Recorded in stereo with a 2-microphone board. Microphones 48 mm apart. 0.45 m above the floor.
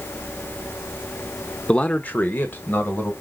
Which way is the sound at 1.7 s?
20° left (ahead or behind).